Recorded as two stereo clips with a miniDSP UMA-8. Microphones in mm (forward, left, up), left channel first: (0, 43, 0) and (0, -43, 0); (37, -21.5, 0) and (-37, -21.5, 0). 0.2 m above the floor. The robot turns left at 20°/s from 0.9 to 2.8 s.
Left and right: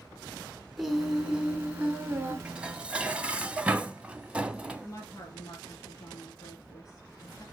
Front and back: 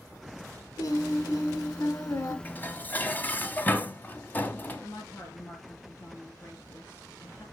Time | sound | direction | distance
0.8 | singing | straight ahead | 1.1 m
2.5 | dishes clattering | 20° right | 0.7 m
4.8 | a woman speaking | 45° left | 3.5 m